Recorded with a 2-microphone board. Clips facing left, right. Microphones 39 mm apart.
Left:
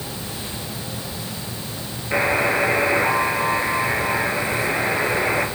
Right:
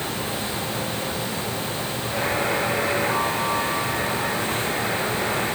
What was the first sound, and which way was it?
A buzzer, 65° left (ahead or behind).